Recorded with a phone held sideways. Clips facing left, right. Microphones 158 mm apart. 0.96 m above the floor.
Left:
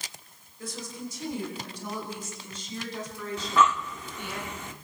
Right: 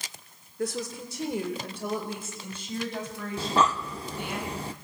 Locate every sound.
0.6 s a woman speaking: 70° right (ahead or behind), 3 m; by 4.4 s 55° right (ahead or behind), 8.5 m
3.4 s breathing: 35° right (ahead or behind), 0.7 m